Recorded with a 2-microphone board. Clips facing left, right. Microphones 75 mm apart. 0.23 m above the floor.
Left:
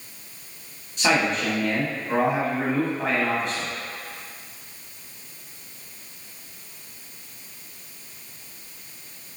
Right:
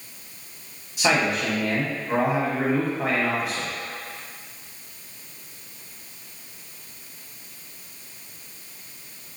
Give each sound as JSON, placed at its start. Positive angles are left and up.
{"t": 1.0, "sound": "a man speaking", "side_deg": -5, "distance_m": 1.3}